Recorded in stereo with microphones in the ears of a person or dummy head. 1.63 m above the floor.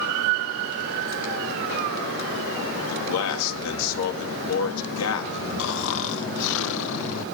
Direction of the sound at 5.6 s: 70° left (ahead or behind).